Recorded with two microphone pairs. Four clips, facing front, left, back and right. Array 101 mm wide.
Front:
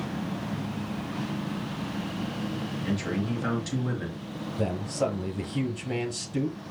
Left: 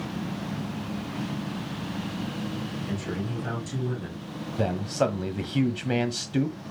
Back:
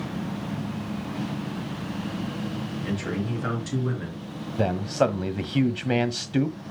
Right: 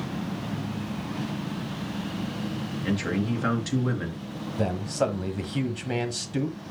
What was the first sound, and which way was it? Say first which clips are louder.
A man speaking: right 9 dB, even; 105° right.